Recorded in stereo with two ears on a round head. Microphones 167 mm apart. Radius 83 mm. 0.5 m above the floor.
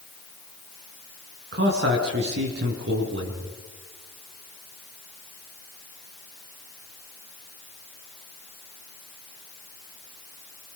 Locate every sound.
1.5 s a man speaking: 65° right (ahead or behind), 5 m